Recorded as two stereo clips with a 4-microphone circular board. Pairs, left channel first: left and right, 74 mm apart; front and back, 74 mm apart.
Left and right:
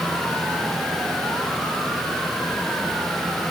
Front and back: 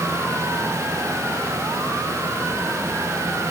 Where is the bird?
No bird in this recording.